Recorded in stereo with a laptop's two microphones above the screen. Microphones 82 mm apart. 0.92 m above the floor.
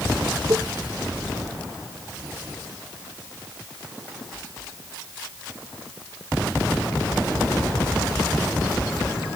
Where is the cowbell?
45° right (ahead or behind).